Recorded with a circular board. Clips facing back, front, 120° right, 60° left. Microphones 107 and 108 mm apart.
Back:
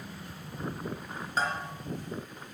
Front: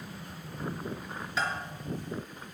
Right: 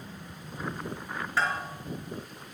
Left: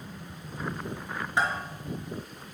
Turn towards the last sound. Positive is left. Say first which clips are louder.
# back 2 dB, left 1 dB
turn(degrees=130)